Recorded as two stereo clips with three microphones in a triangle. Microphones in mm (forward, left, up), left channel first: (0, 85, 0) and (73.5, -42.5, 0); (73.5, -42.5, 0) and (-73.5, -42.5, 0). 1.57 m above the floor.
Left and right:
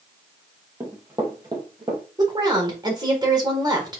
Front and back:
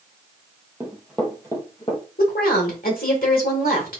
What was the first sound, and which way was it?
Running footsteps, 115° right.